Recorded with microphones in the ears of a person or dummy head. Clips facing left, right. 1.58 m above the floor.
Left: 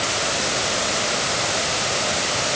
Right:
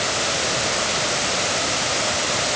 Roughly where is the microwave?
No microwave in this recording.